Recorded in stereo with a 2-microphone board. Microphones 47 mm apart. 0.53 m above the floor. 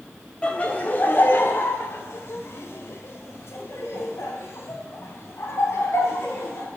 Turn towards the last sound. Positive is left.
turn(degrees=65)  # may be behind; listen again after turning